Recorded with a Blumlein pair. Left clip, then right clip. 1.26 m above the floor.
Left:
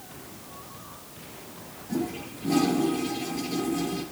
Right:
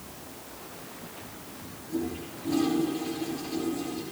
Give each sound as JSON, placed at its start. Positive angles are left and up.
{"t": 1.9, "sound": "a toilet flushing", "azimuth_deg": 55, "distance_m": 4.0}